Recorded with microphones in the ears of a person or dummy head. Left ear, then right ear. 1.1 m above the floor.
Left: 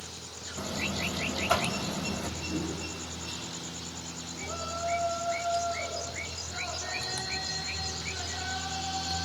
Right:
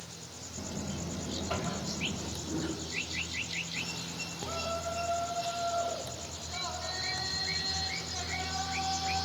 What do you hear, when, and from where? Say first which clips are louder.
0.6 s a buzzer: left 9 dB; 45° left (ahead or behind), 2.5 m
2.4 s a whoosh: left 2 dB; 45° right (ahead or behind), 8 m
4.4 s a shout: left 1 dB; 50° right (ahead or behind), 8.5 m